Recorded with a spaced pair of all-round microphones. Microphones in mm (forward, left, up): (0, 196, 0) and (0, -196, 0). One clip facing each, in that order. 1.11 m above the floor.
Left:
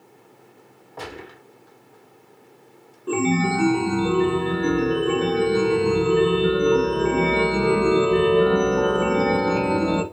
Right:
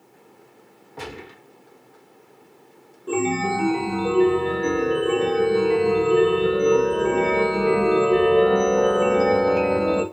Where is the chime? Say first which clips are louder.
Left 2 dB; 20° left (ahead or behind), 0.5 m.